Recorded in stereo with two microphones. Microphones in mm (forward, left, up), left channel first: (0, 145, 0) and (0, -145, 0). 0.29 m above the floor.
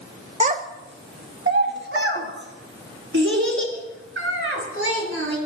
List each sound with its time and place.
0.4 s a child speaking: 25° right (ahead or behind), 0.5 m; by 5.4 s 45° right (ahead or behind), 3 m